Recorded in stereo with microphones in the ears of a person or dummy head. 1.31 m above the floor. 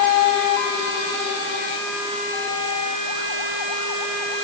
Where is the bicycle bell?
No bicycle bell in this recording.